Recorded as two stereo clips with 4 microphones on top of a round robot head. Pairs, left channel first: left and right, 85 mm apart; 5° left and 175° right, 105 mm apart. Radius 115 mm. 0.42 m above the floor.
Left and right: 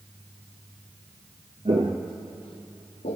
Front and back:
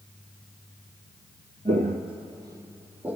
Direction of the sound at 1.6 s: 130° right.